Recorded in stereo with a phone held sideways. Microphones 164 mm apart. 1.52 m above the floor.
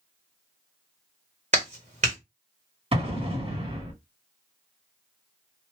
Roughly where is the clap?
Right.